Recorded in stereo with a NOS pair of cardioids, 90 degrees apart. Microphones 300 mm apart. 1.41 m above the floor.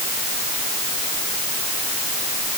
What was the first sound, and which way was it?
Only background noise.